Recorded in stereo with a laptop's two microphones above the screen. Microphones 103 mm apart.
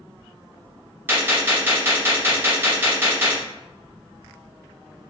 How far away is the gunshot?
About 0.9 m.